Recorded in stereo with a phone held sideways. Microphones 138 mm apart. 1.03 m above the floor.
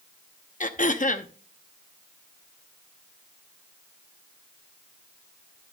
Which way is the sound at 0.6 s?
65° left (ahead or behind).